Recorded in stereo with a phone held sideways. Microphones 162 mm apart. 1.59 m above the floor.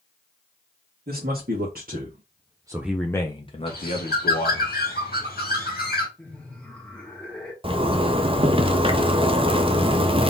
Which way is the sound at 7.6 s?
35° right (ahead or behind).